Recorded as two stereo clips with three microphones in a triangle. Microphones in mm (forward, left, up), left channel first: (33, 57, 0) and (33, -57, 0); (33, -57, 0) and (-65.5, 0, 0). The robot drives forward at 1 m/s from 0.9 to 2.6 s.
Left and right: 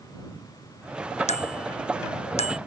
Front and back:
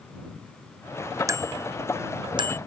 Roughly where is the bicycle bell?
Left.